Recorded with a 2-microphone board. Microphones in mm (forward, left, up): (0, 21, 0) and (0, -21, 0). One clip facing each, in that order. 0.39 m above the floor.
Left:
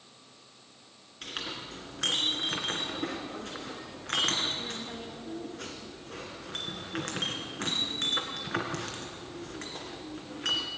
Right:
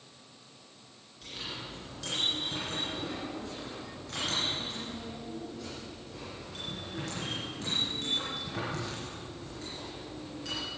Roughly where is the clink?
Left.